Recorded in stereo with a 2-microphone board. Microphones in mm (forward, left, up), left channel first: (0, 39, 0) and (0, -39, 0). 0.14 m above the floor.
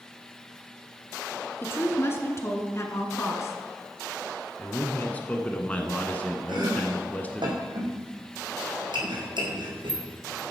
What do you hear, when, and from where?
1.6 s a woman speaking: 30° left (ahead or behind), 1.5 m; by 3.6 s 35° left (ahead or behind), 1.6 m
4.6 s a man speaking: 20° left (ahead or behind), 1.2 m
6.5 s chopping: 80° right, 3 m